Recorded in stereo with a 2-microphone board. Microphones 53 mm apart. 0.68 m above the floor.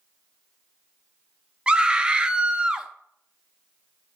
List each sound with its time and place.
1.7 s a scream: 20° right (ahead or behind), 0.7 m